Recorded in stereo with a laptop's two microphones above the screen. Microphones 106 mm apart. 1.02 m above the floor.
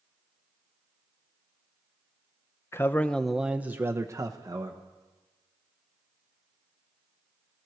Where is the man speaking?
25° left (ahead or behind), 0.6 m; by 4.8 s 35° right (ahead or behind), 1.1 m.